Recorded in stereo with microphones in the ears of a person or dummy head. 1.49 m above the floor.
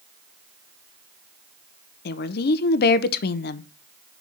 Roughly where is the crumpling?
I don't hear crumpling.